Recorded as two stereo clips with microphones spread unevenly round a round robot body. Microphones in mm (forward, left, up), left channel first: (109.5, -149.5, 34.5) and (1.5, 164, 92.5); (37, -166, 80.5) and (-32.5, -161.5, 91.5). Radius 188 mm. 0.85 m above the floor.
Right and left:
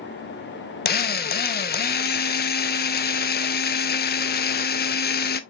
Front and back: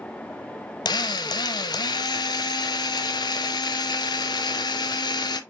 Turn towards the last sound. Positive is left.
turn(degrees=-10)